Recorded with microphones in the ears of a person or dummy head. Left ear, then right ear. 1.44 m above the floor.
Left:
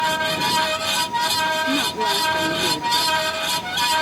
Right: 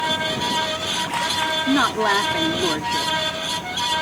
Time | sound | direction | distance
0.0 | a fan | 20° left (ahead or behind) | ?
1.7 | a woman speaking | 75° right (ahead or behind) | ?